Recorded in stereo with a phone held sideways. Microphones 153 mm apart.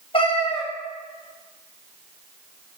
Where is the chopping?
No chopping in this recording.